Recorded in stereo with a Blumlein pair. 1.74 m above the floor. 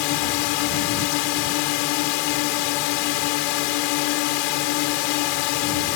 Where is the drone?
45° left.